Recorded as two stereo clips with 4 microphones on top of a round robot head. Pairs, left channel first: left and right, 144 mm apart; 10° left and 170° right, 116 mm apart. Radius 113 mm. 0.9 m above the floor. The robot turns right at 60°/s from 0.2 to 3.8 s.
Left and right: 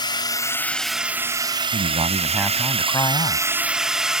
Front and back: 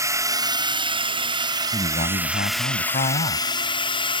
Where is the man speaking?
55° right; by 3.5 s 50° left.